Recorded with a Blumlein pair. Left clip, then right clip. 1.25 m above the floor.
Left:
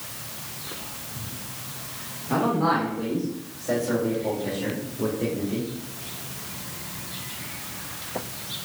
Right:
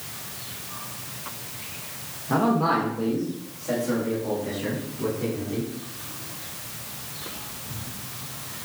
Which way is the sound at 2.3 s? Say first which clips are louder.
Right 1 dB; 5° right.